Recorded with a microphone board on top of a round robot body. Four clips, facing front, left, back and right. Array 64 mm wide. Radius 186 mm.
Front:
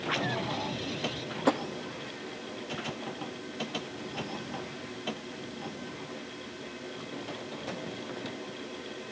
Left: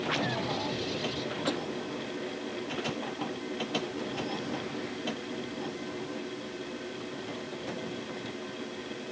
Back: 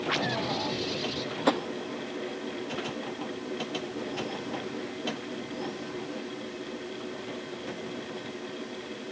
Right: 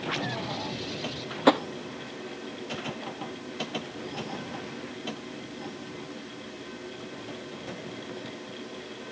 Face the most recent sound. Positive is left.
turn(degrees=-95)